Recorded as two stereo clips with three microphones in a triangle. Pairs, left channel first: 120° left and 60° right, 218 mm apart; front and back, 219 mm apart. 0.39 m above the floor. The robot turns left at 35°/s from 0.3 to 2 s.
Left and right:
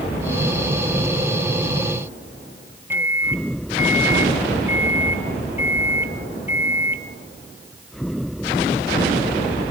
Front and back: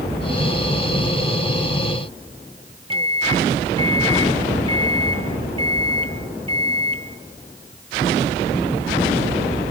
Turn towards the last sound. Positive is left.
turn(degrees=-135)